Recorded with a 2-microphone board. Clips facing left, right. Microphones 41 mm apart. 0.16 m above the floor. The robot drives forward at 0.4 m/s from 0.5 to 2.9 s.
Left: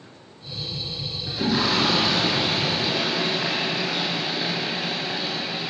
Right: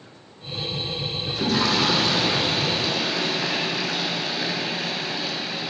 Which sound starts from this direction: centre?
A toilet flushing, at 1.3 s.